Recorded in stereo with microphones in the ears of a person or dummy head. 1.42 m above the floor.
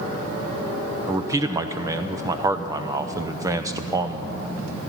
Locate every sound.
1.1 s a man speaking: 20° right (ahead or behind), 0.8 m